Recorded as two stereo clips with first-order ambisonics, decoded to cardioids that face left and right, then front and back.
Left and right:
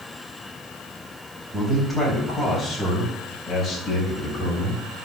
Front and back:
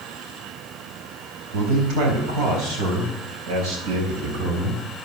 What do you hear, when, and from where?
1.5 s a man speaking: 170° right, 4 m; by 4.8 s 165° left, 5.5 m